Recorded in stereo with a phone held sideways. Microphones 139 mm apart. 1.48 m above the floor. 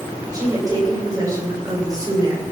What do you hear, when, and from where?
0.3 s a woman speaking: 25° right (ahead or behind), 6 m